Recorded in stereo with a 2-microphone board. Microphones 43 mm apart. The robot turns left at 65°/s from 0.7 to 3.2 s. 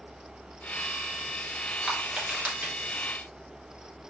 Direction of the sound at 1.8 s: 5° right (ahead or behind).